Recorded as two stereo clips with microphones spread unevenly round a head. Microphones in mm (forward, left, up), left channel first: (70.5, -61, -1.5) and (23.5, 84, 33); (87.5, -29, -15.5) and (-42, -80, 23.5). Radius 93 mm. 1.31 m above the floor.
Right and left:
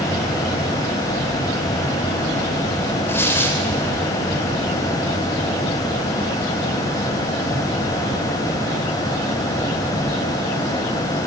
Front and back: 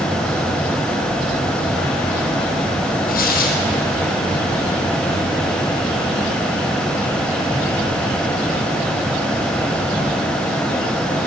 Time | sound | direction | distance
3.1 | tearing paper | 5° left | 4.5 m